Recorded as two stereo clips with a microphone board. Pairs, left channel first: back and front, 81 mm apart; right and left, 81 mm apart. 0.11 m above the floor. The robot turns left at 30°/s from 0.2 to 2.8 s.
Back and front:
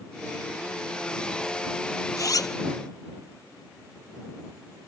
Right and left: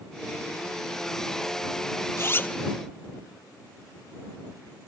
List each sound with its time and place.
2.2 s a zipper: 145° right; by 2.5 s 155° right